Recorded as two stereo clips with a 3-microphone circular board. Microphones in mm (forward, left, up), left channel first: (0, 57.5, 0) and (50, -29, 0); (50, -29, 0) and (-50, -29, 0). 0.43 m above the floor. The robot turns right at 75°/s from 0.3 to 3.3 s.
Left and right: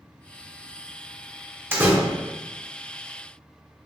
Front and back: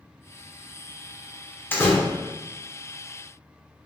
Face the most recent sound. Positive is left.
turn(degrees=85)